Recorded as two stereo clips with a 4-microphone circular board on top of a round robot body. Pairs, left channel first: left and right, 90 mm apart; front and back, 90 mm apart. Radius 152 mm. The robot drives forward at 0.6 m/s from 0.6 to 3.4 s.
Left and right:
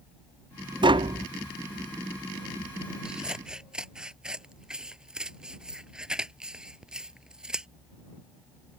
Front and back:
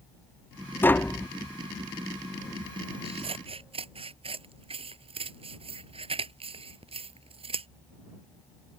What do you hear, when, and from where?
0.8 s tapping: 65° right; by 1.3 s 80° right
3.0 s scissors: 170° right